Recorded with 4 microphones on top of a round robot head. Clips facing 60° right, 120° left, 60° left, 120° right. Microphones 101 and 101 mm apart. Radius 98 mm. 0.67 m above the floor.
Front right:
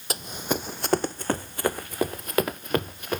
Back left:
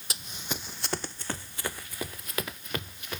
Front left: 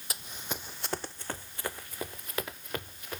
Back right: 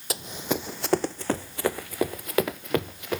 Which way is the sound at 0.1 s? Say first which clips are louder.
Front right 10 dB, back right 12 dB; 105° right.